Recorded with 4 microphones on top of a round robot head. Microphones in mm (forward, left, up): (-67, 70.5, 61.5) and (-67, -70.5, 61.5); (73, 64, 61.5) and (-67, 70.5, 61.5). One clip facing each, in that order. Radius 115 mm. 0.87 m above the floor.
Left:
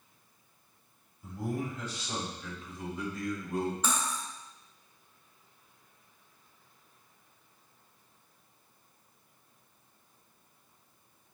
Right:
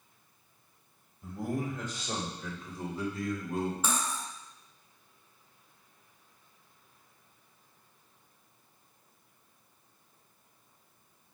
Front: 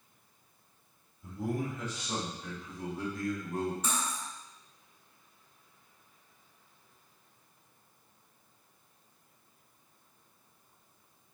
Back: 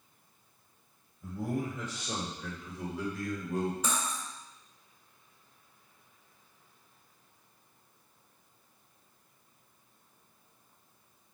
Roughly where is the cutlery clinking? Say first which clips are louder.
Even, back 1 dB; behind.